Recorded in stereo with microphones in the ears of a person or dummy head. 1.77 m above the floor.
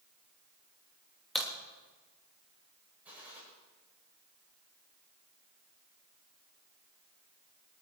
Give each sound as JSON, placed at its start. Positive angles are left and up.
{"t": 1.4, "sound": "a crack", "side_deg": 0, "distance_m": 3.0}
{"t": 3.0, "sound": "a gunshot", "side_deg": -10, "distance_m": 7.5}